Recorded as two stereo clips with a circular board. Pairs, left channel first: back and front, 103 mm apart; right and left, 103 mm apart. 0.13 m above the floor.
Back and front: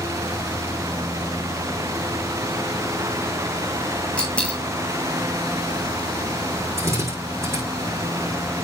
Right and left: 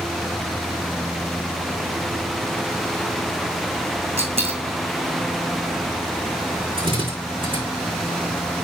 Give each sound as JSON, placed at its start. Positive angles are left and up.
{"t": 4.2, "sound": "a dropped coin", "azimuth_deg": 100, "distance_m": 2.0}
{"t": 6.8, "sound": "a drill", "azimuth_deg": 60, "distance_m": 6.0}